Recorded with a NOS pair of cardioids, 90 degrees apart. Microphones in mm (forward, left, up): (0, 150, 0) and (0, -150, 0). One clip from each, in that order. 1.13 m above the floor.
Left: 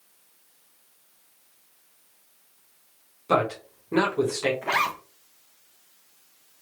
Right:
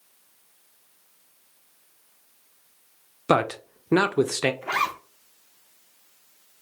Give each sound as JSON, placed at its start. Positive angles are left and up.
{"t": 3.3, "sound": "a man speaking", "azimuth_deg": -55, "distance_m": 0.7}
{"t": 4.6, "sound": "a zipper", "azimuth_deg": 5, "distance_m": 0.7}